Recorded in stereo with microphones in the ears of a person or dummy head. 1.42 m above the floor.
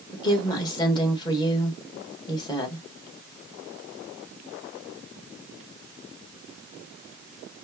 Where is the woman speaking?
20° left (ahead or behind), 1.4 m.